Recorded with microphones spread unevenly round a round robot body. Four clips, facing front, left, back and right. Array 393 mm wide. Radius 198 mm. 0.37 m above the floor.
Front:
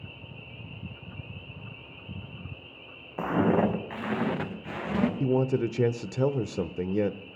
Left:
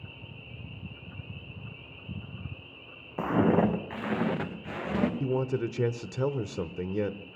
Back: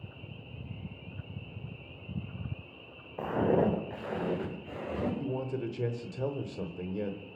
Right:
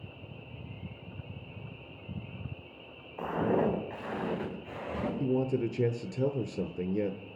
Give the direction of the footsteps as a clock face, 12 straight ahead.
10 o'clock.